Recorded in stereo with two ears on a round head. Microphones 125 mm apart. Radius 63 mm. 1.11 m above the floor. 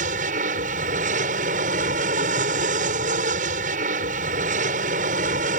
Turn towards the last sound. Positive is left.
turn(degrees=-65)  # may be behind; listen again after turning